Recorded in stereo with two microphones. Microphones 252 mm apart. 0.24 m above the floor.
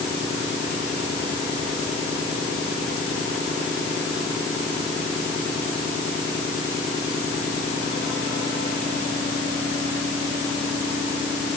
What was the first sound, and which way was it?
Only background noise.